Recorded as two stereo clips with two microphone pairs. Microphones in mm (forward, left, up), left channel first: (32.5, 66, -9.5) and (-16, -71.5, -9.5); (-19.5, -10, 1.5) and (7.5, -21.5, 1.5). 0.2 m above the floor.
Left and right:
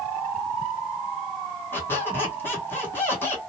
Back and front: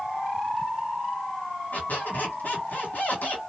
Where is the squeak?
145° left, 0.9 m.